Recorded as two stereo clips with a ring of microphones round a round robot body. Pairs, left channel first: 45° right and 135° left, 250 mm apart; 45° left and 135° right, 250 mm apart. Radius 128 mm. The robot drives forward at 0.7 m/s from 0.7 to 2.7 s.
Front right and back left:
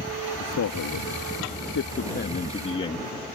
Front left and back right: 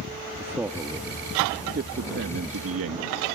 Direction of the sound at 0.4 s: 50° right.